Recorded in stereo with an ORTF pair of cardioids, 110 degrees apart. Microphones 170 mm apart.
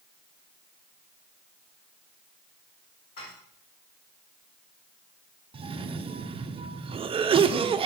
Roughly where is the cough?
Ahead right.